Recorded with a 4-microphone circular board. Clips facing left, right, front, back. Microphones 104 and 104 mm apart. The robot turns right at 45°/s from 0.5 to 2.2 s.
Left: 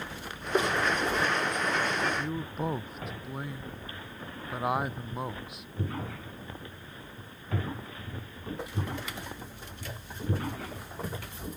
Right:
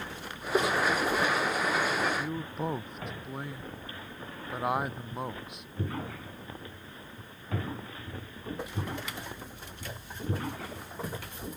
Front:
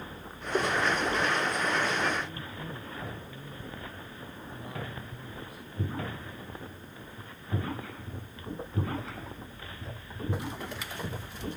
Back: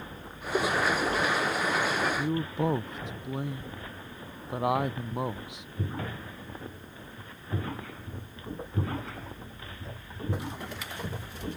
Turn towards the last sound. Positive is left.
turn(degrees=180)